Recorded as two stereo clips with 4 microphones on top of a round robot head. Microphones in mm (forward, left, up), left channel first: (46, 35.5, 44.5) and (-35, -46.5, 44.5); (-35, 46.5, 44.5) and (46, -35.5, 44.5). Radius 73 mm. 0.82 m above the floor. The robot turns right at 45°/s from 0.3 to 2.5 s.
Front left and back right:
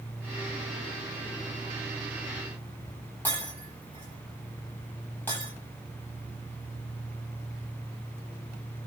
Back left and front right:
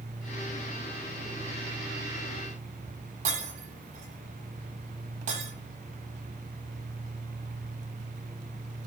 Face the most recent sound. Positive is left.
turn(degrees=-30)